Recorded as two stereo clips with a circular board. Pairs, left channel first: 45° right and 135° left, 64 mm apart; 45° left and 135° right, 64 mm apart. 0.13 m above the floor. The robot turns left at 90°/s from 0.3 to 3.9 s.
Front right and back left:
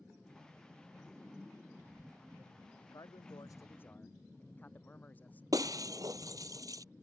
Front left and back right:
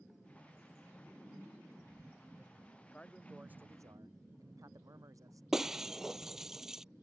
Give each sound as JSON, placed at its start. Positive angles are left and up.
{"t": 2.8, "sound": "a man speaking", "azimuth_deg": -10}
{"t": 5.5, "sound": "breaking glass", "azimuth_deg": 140}